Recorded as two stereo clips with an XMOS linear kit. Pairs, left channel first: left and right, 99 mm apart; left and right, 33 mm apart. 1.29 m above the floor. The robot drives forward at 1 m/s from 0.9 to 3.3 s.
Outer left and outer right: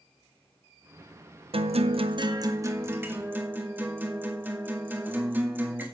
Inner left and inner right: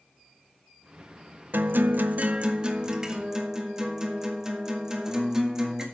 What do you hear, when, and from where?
1.5 s a guitar: 65° right (ahead or behind), 0.6 m; by 5.8 s 20° right (ahead or behind), 1.6 m